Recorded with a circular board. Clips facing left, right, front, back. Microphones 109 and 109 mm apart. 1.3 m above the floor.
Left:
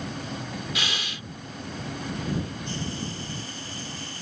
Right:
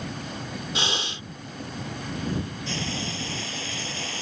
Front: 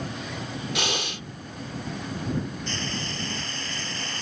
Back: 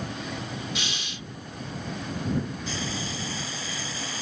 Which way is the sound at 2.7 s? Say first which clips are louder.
Right 1 dB, even; 95° right.